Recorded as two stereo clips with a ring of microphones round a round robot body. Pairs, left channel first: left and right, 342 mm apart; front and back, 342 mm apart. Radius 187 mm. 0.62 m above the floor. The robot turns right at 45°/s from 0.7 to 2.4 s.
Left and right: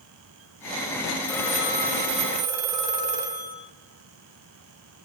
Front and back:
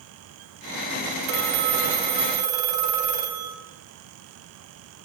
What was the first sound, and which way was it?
A phone ringing, 165° left.